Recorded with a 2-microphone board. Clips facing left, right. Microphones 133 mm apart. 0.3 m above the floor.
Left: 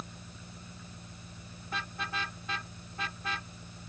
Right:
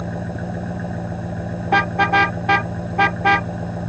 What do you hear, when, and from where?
0.0 s an engine running: 85° right
1.7 s a car horn: 75° right (ahead or behind)